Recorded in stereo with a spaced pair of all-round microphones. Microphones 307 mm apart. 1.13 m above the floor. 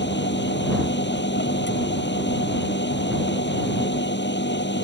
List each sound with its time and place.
0.0 s a machine running: 35° left (ahead or behind)